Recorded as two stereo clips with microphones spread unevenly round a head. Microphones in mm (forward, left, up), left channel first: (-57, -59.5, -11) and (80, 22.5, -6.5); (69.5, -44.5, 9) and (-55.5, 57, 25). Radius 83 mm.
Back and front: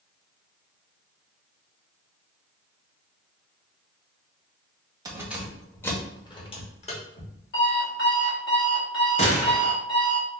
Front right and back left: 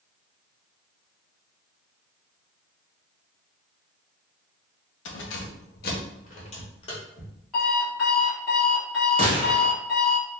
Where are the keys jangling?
35° right, 0.7 m; by 7.3 s 105° right, 1.3 m.